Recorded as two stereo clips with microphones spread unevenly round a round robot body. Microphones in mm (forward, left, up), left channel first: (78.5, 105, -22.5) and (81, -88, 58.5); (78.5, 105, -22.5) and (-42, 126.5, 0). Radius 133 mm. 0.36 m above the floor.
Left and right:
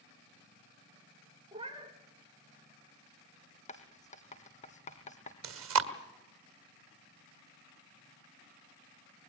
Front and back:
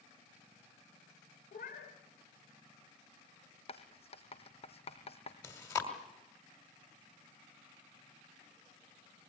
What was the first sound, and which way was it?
A cat meowing, 30° right.